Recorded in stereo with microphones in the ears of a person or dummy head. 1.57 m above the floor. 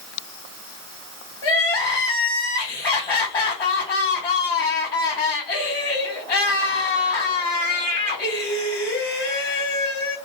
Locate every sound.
1.4 s crying: 20° left (ahead or behind), 1.6 m